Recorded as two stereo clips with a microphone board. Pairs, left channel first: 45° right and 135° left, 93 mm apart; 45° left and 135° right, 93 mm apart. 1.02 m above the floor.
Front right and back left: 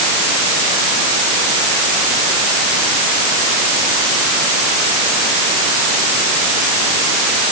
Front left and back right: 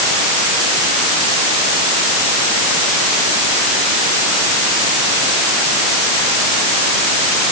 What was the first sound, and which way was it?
Only background noise.